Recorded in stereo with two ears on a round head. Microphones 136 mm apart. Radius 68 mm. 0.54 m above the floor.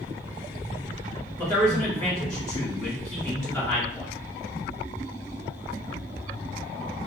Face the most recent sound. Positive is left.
turn(degrees=20)  # may be behind; listen again after turning